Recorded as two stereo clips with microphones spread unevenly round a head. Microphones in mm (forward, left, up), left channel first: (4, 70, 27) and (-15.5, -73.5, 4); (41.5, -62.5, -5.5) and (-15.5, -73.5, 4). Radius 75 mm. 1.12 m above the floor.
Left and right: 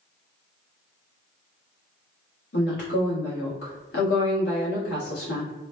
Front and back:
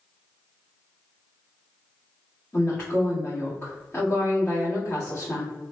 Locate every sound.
2.5 s a woman speaking: 95° left, 1.6 m